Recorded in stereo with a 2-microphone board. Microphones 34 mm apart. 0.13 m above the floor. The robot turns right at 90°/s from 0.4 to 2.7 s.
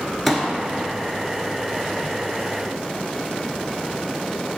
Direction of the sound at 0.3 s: Centre (ahead or behind).